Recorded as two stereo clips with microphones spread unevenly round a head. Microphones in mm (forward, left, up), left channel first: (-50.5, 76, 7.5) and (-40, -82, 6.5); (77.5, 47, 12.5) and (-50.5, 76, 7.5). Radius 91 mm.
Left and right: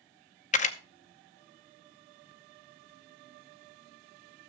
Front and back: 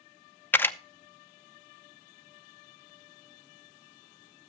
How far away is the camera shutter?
About 0.7 m.